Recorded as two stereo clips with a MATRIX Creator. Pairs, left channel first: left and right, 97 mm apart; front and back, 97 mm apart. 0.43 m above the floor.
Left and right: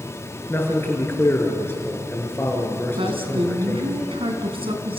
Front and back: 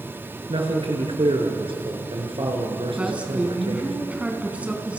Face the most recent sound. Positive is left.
turn(degrees=-105)